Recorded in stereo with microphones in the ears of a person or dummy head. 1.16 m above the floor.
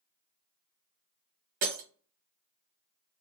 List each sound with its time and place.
1.6 s breaking glass: 50° right (ahead or behind), 1.5 m